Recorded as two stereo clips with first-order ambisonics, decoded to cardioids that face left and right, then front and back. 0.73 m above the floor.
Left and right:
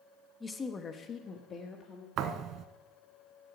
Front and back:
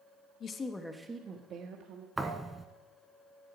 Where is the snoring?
No snoring in this recording.